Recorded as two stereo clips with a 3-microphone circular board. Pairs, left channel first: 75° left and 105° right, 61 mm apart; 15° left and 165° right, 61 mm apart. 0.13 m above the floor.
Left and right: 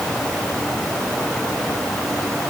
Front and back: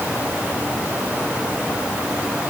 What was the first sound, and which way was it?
Only background noise.